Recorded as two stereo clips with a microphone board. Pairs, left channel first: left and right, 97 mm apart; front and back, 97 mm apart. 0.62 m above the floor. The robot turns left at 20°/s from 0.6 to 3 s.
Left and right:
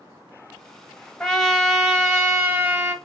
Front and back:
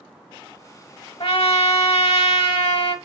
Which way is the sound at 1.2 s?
10° left.